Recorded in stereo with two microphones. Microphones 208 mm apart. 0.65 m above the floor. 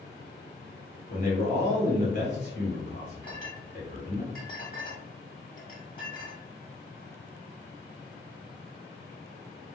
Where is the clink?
45° left (ahead or behind), 1.3 m.